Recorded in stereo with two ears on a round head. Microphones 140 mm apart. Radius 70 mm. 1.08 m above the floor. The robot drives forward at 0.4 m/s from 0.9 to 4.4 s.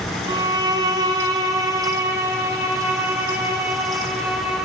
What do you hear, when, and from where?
0.3 s a violin: 25° right (ahead or behind), 0.9 m; by 4.7 s 10° right (ahead or behind), 1.9 m